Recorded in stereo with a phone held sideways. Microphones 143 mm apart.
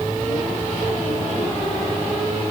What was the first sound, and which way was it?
Only background noise.